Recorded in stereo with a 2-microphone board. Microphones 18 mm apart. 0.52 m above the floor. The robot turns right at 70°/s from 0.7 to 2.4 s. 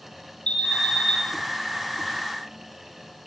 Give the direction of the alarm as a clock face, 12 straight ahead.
9 o'clock.